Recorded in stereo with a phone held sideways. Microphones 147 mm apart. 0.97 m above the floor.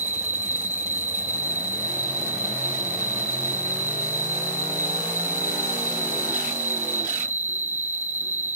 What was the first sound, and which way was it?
An insect, 50° right (ahead or behind).